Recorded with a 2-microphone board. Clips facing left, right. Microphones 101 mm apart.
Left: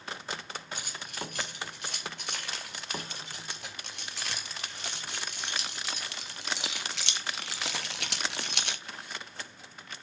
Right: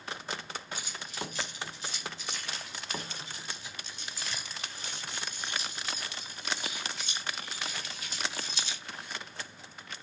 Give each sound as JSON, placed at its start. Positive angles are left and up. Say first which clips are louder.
{"t": 0.8, "sound": "keys jangling", "louder": "even", "side_deg": 60, "distance_m": 4.5}